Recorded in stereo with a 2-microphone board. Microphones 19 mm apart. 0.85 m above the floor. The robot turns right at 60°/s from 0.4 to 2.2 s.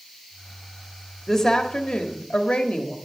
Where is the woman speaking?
20° left, 1.5 m; by 3.0 s 80° left, 1.5 m.